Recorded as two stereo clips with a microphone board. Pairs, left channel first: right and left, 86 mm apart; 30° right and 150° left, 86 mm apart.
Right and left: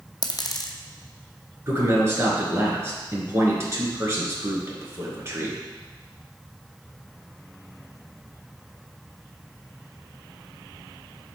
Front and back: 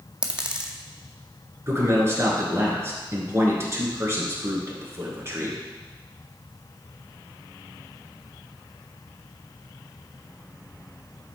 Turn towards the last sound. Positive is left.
turn(degrees=120)